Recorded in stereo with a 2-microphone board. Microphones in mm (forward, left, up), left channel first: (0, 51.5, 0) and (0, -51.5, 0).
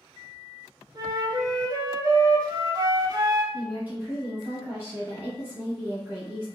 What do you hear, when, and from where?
0.9 s a flute: 40° right (ahead or behind), 0.5 m
3.5 s a woman speaking: 20° right (ahead or behind), 1.0 m